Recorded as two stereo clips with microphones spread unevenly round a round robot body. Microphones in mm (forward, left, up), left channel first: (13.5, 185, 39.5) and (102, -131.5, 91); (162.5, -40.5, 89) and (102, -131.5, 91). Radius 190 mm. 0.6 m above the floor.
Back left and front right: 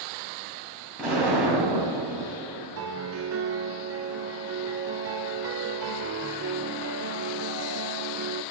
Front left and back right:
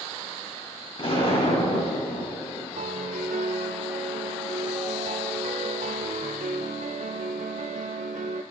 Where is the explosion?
15° left, 4 m.